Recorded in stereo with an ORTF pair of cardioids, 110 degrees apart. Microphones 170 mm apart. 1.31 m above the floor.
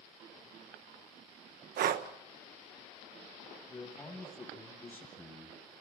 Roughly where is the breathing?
Ahead right.